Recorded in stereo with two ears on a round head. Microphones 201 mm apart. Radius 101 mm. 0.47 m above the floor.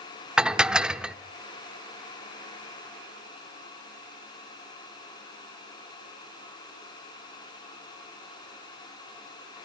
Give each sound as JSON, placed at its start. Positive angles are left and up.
{"t": 0.4, "sound": "dishes clattering", "side_deg": -5, "distance_m": 0.5}